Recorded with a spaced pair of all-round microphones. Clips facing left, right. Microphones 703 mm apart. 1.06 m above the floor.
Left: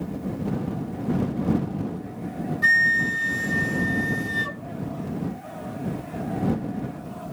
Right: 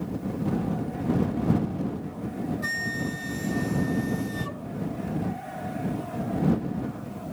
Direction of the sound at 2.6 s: 75° left (ahead or behind).